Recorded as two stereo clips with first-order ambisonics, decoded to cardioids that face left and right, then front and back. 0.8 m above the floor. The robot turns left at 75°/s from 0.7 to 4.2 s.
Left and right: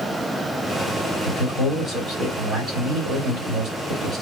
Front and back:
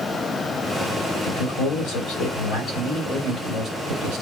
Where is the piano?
No piano in this recording.